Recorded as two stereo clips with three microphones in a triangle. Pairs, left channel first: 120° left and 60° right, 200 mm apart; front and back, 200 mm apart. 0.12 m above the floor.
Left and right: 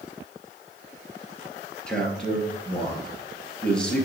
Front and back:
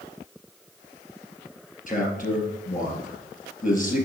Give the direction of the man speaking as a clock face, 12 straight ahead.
11 o'clock.